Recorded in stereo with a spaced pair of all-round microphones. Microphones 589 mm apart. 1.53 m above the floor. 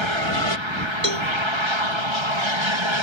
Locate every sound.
0.0 s an aircraft: 50° right (ahead or behind)
1.0 s a cowbell: 65° right (ahead or behind)